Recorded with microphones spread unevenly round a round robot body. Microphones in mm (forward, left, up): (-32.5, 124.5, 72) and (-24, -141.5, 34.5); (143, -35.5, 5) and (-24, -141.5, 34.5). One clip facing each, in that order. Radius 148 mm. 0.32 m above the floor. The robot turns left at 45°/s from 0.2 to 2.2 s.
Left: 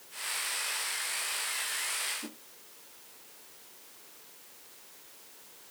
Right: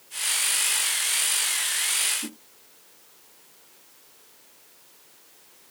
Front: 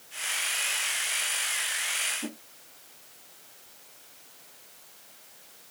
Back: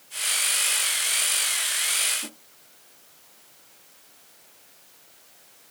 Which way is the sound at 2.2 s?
30° right.